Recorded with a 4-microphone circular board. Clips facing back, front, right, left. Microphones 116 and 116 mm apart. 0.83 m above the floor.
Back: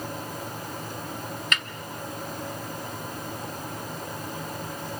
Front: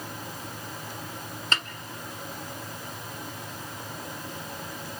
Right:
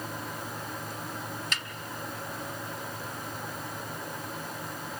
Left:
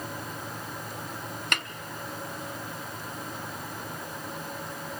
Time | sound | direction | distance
1.5 | a snare drum | 60° left | 0.7 m